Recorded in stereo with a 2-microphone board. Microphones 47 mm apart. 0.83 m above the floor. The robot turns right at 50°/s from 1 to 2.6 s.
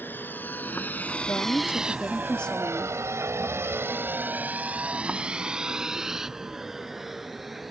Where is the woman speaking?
105° left; by 3.0 s 170° left.